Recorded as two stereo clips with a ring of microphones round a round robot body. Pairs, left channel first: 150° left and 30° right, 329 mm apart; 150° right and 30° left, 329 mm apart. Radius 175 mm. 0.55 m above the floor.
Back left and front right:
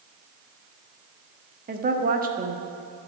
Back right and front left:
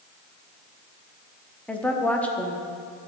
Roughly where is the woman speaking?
Ahead right.